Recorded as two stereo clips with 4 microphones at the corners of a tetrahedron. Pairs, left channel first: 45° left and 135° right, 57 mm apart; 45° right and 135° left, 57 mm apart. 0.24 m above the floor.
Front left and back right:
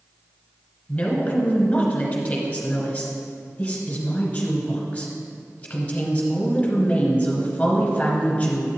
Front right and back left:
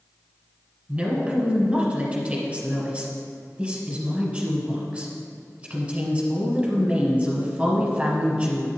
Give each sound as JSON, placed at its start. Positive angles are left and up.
{"t": 0.9, "sound": "a woman speaking", "azimuth_deg": 95, "distance_m": 1.6}